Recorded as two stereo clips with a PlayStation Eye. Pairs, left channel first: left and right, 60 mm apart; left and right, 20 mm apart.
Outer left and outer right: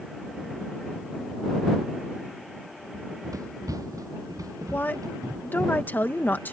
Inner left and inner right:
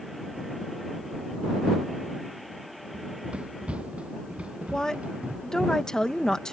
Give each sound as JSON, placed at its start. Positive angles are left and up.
{"t": 2.9, "sound": "running footsteps", "side_deg": -80}
{"t": 4.7, "sound": "a woman speaking", "side_deg": 35}